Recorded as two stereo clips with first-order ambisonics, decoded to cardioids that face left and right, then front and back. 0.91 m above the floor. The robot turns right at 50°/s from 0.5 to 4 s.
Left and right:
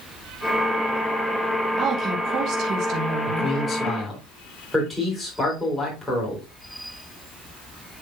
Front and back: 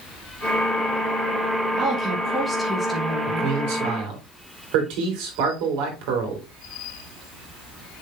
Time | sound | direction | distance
1.8 | a woman speaking | 135° right | 1.1 m
3.3 | a man speaking | 140° left | 3.5 m